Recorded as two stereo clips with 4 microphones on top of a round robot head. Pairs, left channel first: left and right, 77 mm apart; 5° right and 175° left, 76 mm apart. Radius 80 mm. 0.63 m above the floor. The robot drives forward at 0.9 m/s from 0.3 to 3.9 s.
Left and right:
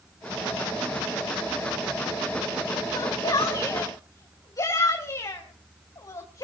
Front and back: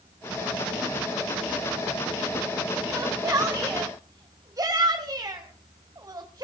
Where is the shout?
115° left, 3 m; by 6.5 s 130° left, 3 m.